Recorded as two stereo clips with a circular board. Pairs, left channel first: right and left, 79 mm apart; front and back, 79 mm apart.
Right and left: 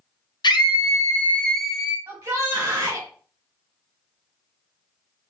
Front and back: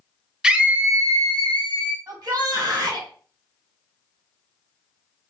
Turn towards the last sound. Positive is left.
turn(degrees=140)